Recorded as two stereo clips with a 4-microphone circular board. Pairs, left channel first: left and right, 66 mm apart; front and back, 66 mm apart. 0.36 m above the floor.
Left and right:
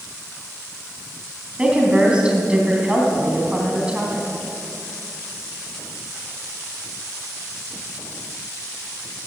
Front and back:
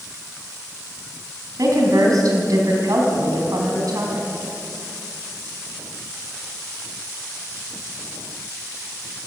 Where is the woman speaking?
165° right, 3 m.